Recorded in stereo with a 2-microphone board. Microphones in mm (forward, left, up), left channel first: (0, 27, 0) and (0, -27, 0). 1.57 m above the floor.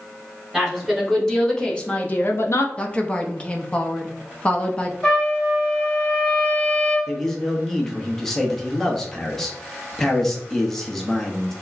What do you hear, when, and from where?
0.5 s a woman speaking: centre (ahead or behind), 1.7 m; by 2.7 s 70° left (ahead or behind), 0.5 m
2.8 s a woman speaking: 25° left (ahead or behind), 0.6 m
5.0 s a trumpet: 10° left (ahead or behind), 1.1 m
7.1 s a man speaking: 5° left (ahead or behind), 0.8 m